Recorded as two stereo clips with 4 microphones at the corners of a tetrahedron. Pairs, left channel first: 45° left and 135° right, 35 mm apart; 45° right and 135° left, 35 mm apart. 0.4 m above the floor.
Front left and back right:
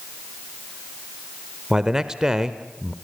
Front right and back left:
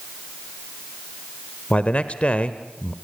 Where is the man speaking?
70° right, 1.0 m.